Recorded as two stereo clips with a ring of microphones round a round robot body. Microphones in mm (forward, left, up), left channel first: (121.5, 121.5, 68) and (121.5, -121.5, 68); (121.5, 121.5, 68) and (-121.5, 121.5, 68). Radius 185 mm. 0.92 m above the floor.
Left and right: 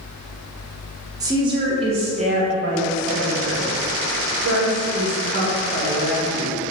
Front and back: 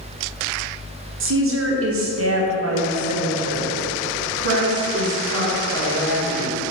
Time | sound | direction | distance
1.2 | a woman speaking | 165° right | 1.2 m